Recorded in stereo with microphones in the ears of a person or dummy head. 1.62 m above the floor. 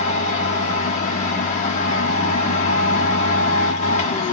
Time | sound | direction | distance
0.0 | a machine running | 35° left (ahead or behind) | 0.8 m